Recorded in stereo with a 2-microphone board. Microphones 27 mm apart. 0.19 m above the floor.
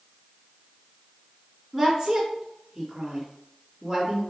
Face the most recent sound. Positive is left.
turn(degrees=0)  # may be behind; listen again after turning